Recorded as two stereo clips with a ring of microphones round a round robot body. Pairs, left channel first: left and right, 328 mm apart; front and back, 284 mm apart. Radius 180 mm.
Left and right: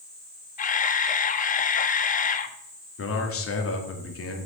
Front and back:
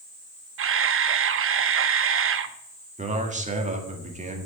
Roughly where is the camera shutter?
Behind left.